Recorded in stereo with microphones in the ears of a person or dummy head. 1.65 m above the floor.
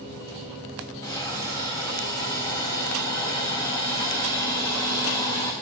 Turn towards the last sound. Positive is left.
turn(degrees=15)  # may be behind; listen again after turning